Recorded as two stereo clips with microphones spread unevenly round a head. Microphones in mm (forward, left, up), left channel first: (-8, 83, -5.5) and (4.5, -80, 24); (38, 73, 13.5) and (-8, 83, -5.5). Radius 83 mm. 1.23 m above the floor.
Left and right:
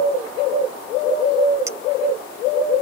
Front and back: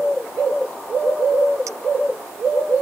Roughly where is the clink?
Behind right.